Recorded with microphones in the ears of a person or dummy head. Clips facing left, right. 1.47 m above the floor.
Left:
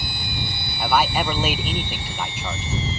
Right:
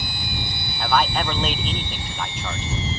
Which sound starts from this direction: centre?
A man speaking, at 0.8 s.